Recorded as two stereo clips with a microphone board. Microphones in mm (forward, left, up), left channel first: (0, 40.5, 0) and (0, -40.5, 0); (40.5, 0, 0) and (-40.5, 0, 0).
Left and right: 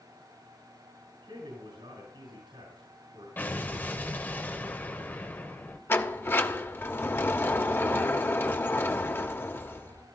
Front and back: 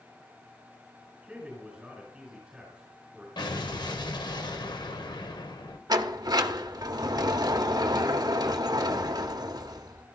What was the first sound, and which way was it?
A man speaking, 100° right.